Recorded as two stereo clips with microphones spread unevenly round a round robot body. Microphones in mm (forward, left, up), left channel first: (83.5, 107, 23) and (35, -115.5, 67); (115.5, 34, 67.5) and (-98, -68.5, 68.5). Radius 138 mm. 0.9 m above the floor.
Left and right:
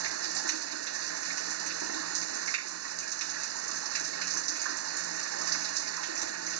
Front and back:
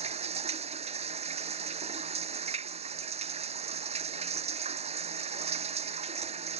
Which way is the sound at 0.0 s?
90° right.